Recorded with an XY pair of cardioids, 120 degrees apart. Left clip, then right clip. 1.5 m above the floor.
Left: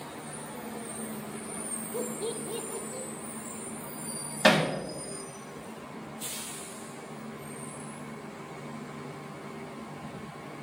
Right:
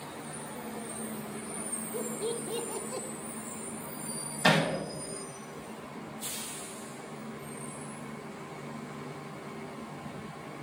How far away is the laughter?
About 0.6 m.